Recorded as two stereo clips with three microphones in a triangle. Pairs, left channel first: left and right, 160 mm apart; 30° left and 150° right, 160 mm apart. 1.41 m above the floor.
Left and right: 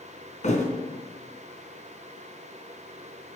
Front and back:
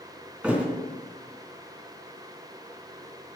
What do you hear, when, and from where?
0.4 s a thud: 130° left, 3.5 m